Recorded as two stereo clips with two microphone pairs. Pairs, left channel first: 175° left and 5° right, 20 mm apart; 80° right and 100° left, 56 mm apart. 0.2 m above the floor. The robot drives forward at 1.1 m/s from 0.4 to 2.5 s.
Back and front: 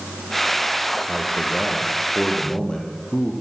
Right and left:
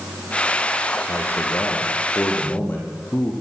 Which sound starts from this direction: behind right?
A man speaking, at 1.1 s.